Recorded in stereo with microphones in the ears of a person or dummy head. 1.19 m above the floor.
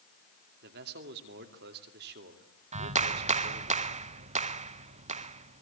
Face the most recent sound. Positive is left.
turn(degrees=-35)  # may be behind; listen again after turning